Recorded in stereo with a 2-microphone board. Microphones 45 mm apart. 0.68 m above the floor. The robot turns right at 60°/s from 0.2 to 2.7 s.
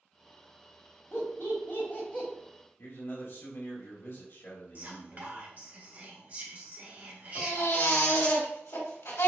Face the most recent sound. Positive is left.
turn(degrees=75)  # may be behind; listen again after turning